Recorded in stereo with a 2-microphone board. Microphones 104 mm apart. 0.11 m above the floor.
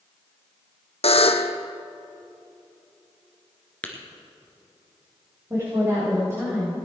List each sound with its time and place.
1.0 s a buzzer: 75° left (ahead or behind), 0.9 m
3.8 s tapping: 10° left (ahead or behind), 1.9 m
5.5 s a woman speaking: 25° right (ahead or behind), 6 m